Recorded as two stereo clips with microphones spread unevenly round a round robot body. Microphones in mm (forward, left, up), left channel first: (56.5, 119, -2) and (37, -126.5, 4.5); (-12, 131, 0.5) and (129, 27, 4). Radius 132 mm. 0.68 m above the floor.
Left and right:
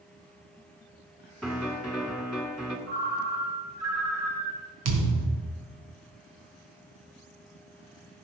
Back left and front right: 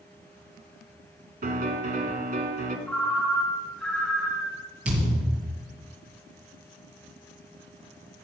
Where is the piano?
5° right, 2 m.